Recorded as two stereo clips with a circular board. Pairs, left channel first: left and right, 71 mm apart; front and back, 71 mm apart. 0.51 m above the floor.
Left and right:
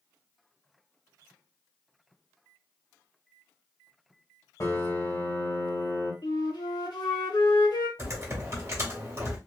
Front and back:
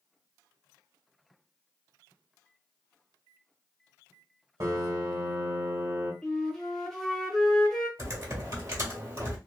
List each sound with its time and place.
4.6 s a piano: 135° left, 1.5 m
6.2 s a flute: 85° left, 0.7 m
8.0 s typing on a keyboard: 135° right, 1.1 m